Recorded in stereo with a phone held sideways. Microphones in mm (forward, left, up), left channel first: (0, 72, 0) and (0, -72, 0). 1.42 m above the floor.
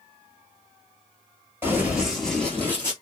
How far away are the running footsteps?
About 1.5 m.